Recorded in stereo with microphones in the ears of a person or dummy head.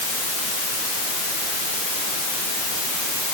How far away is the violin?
No violin in this recording.